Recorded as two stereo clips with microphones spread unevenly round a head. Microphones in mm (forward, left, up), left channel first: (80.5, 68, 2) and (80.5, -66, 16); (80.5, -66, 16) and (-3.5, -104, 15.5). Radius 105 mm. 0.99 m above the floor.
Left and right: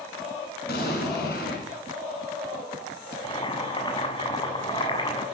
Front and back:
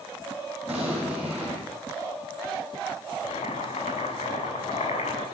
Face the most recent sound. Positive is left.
turn(degrees=35)